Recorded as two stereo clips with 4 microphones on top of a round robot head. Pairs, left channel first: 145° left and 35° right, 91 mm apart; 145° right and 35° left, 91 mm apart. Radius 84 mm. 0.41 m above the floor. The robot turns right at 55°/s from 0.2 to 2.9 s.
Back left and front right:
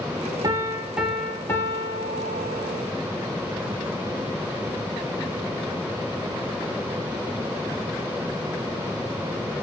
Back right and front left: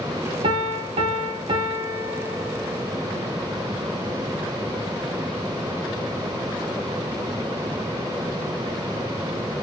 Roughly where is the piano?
Ahead.